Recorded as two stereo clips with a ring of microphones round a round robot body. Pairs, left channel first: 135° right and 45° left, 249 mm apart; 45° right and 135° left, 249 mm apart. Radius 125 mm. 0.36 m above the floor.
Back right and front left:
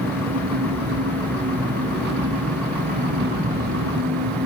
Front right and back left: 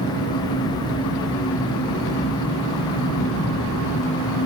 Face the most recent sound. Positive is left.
turn(degrees=-5)